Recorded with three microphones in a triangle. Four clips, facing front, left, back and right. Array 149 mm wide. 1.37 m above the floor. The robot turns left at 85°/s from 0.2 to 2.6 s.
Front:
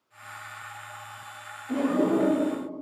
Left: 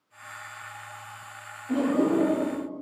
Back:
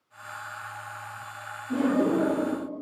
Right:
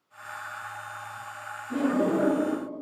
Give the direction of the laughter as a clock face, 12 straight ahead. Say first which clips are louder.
Left 2 dB, even; 10 o'clock.